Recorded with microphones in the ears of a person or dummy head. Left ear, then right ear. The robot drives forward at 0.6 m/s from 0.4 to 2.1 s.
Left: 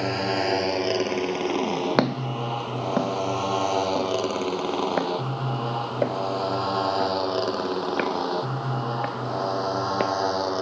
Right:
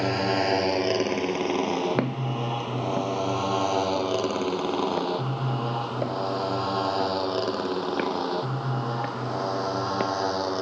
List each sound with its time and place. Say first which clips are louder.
0.0 s a motorcycle: even; centre (ahead or behind); by 10.6 s 15° left (ahead or behind)
2.0 s footsteps: left 4 dB; 35° left (ahead or behind); by 10.1 s 25° left (ahead or behind)